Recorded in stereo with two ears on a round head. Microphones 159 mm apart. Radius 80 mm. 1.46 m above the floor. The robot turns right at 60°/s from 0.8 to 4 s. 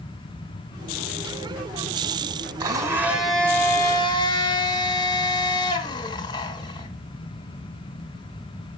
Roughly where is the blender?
Ahead right.